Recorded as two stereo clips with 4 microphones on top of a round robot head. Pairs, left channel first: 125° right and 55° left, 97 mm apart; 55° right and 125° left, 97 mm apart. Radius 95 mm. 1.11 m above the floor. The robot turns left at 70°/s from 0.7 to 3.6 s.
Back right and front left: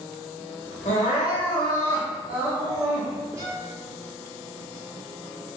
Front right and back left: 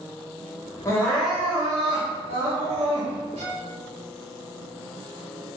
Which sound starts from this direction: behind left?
A violin, at 3.4 s.